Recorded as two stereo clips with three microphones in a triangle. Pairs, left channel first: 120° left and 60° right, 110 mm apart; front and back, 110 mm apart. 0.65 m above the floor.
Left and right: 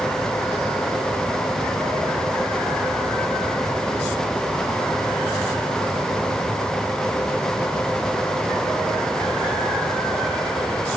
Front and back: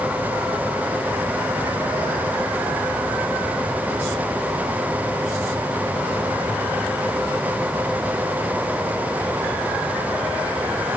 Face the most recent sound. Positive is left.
No sound to turn to.